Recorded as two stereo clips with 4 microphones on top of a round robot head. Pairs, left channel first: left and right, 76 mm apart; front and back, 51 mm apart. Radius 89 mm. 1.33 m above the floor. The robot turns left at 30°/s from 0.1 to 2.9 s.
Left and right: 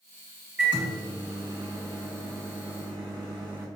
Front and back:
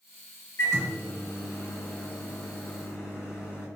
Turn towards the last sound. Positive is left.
turn(degrees=-90)